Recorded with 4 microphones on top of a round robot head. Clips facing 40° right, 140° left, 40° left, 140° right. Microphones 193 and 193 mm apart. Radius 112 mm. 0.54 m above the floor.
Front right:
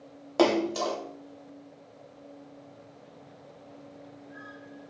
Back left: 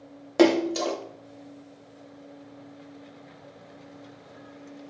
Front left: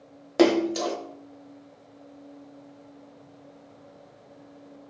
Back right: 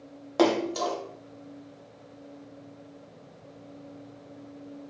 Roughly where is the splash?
Left.